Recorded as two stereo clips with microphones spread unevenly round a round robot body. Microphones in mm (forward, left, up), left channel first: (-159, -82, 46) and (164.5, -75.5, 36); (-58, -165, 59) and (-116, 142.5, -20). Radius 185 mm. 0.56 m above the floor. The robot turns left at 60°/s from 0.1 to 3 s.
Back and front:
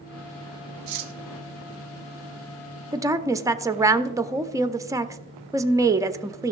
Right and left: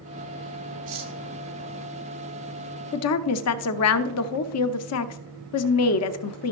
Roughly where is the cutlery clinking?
Ahead left.